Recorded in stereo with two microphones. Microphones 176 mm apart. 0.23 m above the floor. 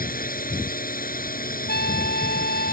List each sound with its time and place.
0.0 s a drone: 55° left (ahead or behind)
1.7 s a trumpet: 65° left (ahead or behind)